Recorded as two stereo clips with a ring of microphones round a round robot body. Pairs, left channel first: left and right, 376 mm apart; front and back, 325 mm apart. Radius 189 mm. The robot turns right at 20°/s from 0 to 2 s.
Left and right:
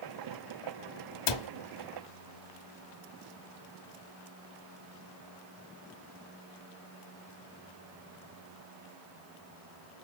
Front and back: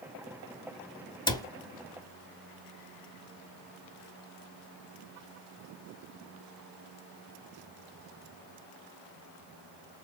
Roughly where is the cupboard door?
Left.